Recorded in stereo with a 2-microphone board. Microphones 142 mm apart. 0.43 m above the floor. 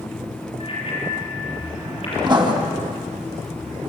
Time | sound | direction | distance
0.6 | a bicycle bell | 40° left (ahead or behind) | 7 m
2.2 | writing | 30° right (ahead or behind) | 3 m